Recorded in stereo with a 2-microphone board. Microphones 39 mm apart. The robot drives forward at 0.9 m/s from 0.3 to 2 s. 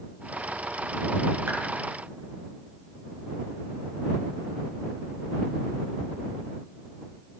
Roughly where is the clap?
Right.